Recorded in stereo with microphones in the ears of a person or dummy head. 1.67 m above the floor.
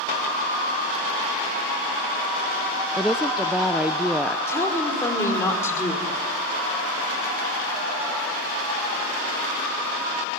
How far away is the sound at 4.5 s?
About 5 m.